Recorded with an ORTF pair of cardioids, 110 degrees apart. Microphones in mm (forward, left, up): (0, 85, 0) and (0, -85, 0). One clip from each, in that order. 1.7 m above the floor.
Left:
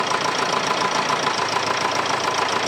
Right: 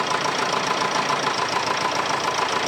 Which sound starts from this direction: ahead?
A machine running, at 0.0 s.